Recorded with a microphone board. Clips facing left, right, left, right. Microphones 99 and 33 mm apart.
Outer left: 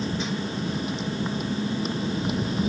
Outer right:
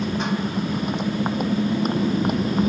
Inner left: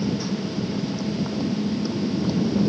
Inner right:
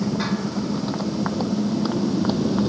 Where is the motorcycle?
55° right (ahead or behind); by 2.7 s 50° right (ahead or behind).